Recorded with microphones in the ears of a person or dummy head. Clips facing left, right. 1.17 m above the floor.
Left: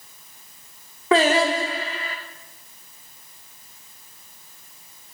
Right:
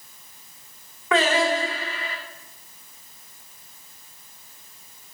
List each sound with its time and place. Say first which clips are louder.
1.1 s singing: left 3 dB; 30° left (ahead or behind), 1.7 m